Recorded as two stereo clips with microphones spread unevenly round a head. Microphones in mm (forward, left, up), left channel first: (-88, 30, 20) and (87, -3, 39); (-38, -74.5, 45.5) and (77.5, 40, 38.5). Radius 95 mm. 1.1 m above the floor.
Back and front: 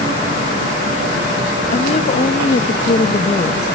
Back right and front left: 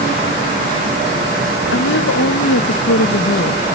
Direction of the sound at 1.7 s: 135° right.